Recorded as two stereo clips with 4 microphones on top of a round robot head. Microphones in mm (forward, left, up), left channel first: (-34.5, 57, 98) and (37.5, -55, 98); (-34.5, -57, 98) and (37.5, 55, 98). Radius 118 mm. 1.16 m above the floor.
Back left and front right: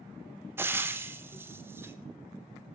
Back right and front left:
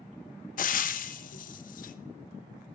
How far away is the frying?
About 0.6 m.